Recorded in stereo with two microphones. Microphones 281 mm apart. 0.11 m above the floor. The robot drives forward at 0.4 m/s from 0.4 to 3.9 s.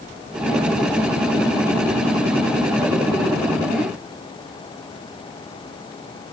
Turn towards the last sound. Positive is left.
No sound to turn to.